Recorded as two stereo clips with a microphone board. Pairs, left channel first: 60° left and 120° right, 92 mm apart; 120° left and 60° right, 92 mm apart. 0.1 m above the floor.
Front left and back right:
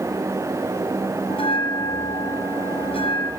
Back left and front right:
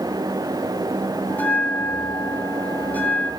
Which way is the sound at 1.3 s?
50° left.